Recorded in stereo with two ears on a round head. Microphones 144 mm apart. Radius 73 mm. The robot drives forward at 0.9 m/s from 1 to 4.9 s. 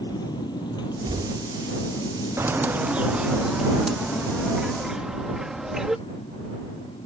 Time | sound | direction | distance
0.0 | a motorcycle | 25° left (ahead or behind) | ?
1.0 | knocking | 30° right (ahead or behind) | ?
2.4 | a bird | 15° right (ahead or behind) | ?